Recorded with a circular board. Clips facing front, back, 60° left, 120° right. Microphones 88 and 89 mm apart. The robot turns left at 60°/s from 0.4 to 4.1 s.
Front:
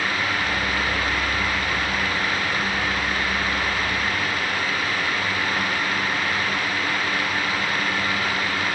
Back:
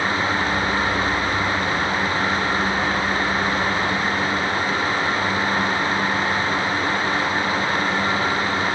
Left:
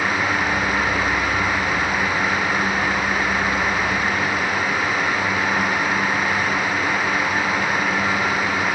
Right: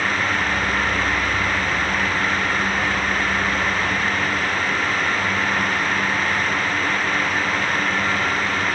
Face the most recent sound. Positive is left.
No sound to turn to.